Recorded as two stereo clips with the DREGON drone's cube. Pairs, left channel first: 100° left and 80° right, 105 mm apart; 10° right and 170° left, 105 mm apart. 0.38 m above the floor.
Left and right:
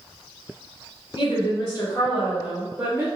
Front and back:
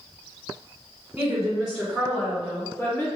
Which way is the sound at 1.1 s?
105° left.